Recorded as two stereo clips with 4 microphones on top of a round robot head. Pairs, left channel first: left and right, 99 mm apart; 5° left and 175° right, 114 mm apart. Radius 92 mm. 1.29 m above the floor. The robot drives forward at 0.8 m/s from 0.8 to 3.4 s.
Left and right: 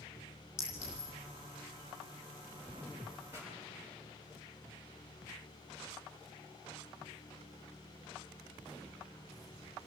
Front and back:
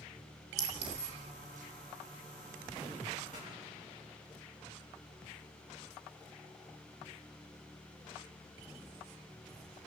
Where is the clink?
160° left, 3 m.